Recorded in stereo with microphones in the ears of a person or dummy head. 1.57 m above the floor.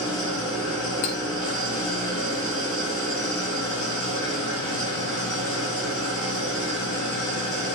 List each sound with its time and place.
0.0 s an engine running: 25° left (ahead or behind), 4 m
1.0 s cutlery clinking: 60° left (ahead or behind), 1.4 m